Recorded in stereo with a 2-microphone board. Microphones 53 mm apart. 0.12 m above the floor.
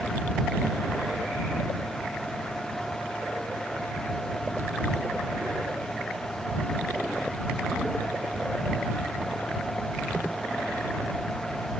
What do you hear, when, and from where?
Only background noise.